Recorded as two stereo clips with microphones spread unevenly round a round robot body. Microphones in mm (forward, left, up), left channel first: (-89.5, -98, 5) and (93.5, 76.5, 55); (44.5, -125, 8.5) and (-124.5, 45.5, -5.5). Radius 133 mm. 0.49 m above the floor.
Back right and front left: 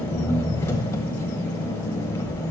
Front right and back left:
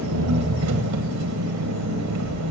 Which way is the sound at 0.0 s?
145° left.